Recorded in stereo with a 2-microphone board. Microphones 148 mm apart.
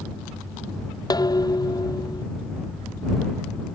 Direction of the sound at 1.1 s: 25° left (ahead or behind).